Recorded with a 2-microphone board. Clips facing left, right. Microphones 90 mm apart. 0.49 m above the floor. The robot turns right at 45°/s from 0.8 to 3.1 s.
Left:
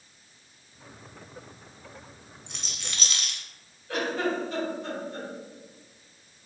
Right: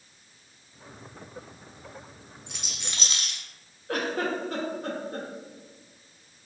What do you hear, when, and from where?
2.5 s a rattle: centre (ahead or behind), 0.7 m; by 3.4 s 30° right (ahead or behind), 0.7 m
3.9 s a giggle: 45° right (ahead or behind), 0.8 m